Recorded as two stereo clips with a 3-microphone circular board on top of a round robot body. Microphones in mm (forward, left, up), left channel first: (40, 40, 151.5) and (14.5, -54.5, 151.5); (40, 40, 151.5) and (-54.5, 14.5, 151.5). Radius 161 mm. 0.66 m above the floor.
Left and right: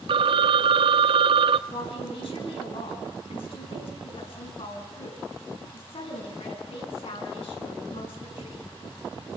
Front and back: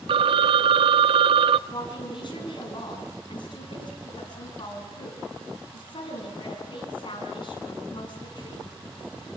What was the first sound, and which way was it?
A phone ringing, 135° right.